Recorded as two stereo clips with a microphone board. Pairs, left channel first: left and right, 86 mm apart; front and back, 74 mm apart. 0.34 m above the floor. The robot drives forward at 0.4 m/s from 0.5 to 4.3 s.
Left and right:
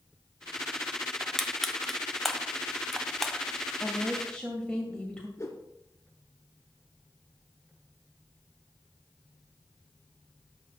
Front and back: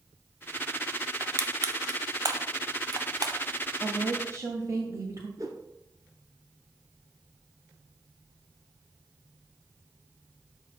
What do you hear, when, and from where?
1.2 s crushing: 175° left, 0.9 m; by 3.4 s straight behind, 1.6 m
3.8 s a woman speaking: 165° left, 1.7 m; by 5.3 s 170° left, 1.8 m
5.4 s a whoosh: 150° left, 1.7 m